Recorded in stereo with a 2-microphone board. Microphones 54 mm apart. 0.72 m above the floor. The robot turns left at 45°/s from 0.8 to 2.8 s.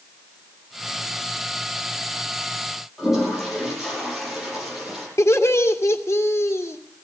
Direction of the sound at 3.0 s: 5° right (ahead or behind).